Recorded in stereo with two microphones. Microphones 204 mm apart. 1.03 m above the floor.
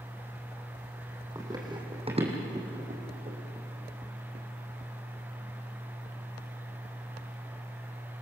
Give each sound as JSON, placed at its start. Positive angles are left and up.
{"t": 1.4, "sound": "running footsteps", "side_deg": -15, "distance_m": 3.0}